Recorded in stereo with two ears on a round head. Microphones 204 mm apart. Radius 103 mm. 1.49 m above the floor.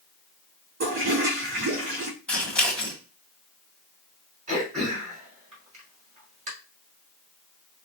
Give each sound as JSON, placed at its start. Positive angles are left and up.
{"t": 0.8, "sound": "a toilet flushing", "side_deg": -45, "distance_m": 3.5}
{"t": 2.3, "sound": "scissors", "side_deg": 5, "distance_m": 1.4}
{"t": 4.5, "sound": "throat clearing", "side_deg": -35, "distance_m": 3.5}